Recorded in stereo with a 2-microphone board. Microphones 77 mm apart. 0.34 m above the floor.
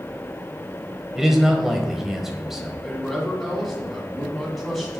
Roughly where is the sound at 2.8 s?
Centre.